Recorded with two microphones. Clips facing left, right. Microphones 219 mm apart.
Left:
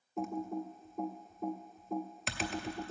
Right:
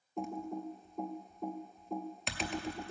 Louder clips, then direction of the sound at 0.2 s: Left 2 dB; centre (ahead or behind).